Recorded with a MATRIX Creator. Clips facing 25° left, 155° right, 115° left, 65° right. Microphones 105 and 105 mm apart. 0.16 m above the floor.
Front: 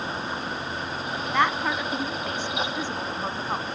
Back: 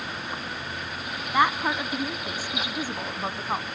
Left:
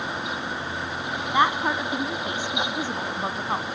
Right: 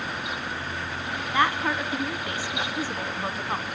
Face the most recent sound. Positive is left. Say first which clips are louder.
# back 1 dB, left 2 dB
turn(degrees=135)